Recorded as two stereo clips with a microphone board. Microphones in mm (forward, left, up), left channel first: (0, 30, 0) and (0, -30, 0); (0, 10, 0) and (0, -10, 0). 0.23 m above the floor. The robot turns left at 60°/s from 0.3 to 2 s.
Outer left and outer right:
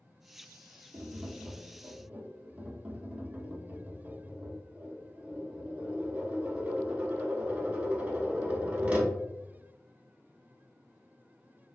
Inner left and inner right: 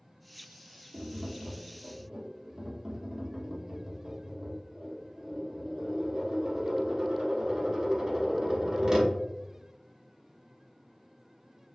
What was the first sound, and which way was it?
Tapping, 85° right.